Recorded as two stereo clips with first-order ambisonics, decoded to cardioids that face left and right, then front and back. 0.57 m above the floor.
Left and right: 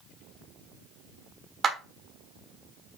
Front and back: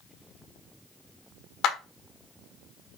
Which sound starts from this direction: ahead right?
A clap, at 1.6 s.